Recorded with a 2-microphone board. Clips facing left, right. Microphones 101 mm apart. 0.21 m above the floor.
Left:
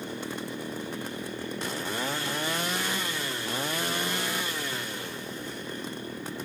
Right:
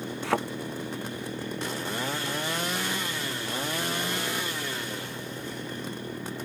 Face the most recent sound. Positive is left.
turn(degrees=-75)  # may be behind; listen again after turning